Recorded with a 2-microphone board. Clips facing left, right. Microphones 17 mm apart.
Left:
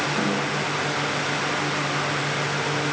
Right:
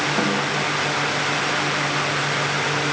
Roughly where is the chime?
No chime in this recording.